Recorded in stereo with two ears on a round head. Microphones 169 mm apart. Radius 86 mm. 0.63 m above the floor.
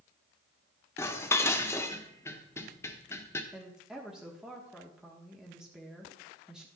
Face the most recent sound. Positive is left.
turn(degrees=-5)  # may be behind; listen again after turning